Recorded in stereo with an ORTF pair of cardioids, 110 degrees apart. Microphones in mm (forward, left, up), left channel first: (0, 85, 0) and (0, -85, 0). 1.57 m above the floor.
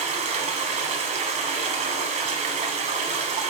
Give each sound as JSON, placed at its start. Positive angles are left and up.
{"t": 0.0, "sound": "running water", "azimuth_deg": -45, "distance_m": 4.0}